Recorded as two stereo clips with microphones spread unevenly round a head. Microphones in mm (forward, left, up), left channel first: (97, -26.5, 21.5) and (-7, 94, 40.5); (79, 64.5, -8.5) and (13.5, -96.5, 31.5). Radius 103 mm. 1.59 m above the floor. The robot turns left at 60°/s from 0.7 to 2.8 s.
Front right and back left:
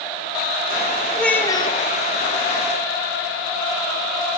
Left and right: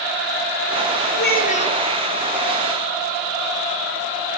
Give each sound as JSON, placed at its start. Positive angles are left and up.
{"t": 1.1, "sound": "a child speaking", "azimuth_deg": 40, "distance_m": 4.0}